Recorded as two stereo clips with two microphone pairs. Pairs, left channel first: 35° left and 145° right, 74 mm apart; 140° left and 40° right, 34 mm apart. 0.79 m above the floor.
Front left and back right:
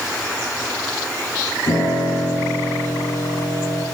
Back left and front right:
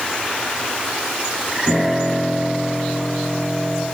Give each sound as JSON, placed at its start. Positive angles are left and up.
{"t": 1.7, "sound": "a piano", "azimuth_deg": 30, "distance_m": 8.5}